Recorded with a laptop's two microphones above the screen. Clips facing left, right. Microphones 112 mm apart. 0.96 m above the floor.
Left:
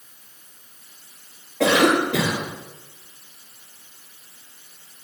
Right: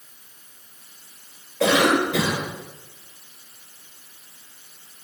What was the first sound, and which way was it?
A cough, 80° left.